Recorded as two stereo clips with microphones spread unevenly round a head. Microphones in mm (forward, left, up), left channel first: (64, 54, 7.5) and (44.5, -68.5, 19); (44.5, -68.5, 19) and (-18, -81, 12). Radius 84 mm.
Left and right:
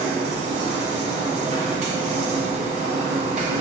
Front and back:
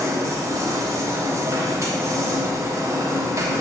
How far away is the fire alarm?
No fire alarm in this recording.